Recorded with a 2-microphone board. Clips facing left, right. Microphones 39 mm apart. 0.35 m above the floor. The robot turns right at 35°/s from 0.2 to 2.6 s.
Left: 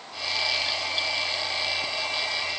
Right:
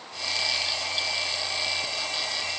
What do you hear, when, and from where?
Only background noise.